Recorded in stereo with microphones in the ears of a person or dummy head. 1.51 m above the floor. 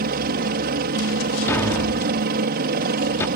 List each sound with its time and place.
0.0 s a helicopter: 50° right (ahead or behind)
1.5 s a thud: 10° left (ahead or behind)